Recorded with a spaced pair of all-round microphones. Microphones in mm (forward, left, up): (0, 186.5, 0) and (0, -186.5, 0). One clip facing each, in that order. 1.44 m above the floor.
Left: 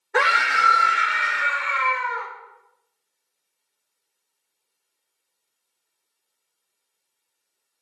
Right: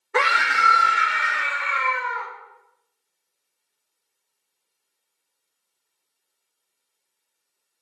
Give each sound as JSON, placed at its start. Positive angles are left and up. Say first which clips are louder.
{"t": 0.1, "sound": "a scream", "louder": "left 1 dB", "side_deg": -10, "distance_m": 1.0}